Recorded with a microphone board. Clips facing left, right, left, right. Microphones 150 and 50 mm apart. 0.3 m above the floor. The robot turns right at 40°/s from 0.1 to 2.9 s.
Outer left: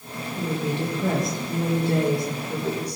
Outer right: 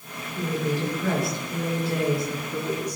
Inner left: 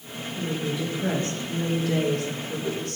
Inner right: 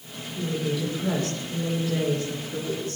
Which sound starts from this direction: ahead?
A woman speaking, at 0.4 s.